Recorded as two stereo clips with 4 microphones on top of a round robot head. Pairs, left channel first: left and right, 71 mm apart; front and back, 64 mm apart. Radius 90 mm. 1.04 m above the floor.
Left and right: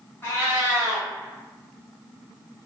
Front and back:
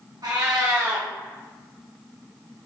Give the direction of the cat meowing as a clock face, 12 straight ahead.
7 o'clock.